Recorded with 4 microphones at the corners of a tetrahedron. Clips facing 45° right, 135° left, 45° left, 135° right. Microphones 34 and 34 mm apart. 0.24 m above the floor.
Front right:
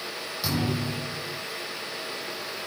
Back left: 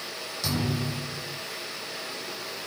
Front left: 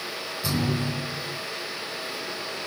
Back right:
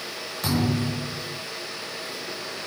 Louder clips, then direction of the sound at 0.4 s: Front right 1 dB, back right 3 dB; 120° right.